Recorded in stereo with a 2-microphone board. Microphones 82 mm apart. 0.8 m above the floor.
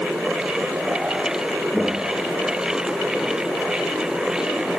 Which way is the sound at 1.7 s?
5° left (ahead or behind).